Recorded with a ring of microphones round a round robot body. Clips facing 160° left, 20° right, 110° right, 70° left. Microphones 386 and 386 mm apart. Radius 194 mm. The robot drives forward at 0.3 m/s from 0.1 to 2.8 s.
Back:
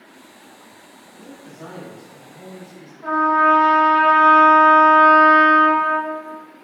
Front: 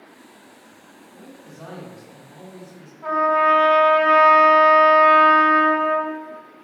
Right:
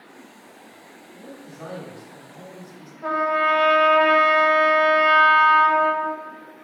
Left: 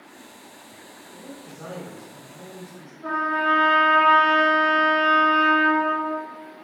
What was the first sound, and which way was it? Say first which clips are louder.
A man speaking: back 3 dB, even; 65° right.